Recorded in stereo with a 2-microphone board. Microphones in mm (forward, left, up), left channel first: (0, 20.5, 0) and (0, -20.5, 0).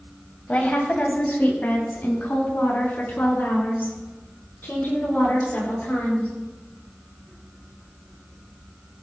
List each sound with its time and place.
0.5 s a woman speaking: 40° left (ahead or behind), 1.6 m; by 6.3 s 55° left (ahead or behind), 5.5 m